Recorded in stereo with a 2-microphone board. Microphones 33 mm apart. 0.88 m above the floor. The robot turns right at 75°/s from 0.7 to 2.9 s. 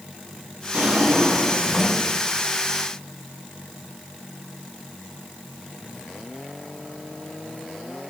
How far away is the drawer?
About 4 m.